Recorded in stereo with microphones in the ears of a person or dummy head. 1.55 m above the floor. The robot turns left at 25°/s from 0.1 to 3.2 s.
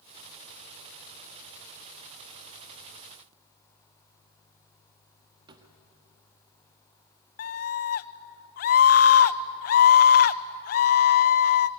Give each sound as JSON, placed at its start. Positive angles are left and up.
{"t": 5.5, "sound": "a drawer", "side_deg": -20, "distance_m": 1.3}
{"t": 7.4, "sound": "a scream", "side_deg": 55, "distance_m": 1.0}